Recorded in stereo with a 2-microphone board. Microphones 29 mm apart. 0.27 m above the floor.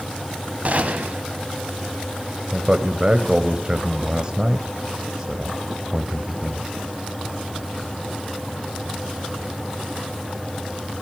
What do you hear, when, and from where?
0.7 s a gunshot: 50° right (ahead or behind), 1.4 m
2.5 s a man speaking: 25° right (ahead or behind), 1.1 m